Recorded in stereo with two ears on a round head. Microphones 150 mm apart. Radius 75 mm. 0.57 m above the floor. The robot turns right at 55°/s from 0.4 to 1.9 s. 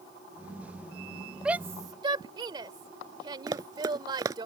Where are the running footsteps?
20° right (ahead or behind).